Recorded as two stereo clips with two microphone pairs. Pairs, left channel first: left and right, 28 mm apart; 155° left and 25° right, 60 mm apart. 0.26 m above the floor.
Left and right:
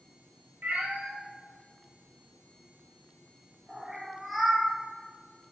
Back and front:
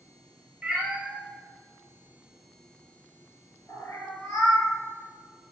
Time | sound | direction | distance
0.6 | a cat meowing | 100° right | 2 m